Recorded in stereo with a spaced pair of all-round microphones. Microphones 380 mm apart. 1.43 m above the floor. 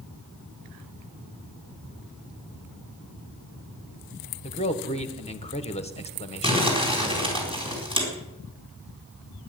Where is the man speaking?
15° left (ahead or behind), 1.3 m.